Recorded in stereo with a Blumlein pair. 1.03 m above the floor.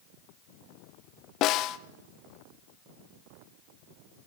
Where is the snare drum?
35° left, 1.0 m.